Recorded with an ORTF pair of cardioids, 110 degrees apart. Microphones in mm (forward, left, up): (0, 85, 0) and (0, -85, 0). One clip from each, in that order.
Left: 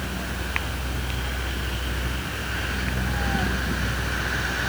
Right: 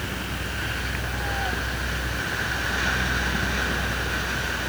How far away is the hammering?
I don't hear hammering.